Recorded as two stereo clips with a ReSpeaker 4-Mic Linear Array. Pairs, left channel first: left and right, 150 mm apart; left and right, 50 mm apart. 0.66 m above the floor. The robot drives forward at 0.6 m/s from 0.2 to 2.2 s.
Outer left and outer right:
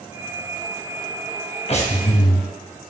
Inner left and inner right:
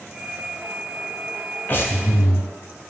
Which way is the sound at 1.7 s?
45° left (ahead or behind).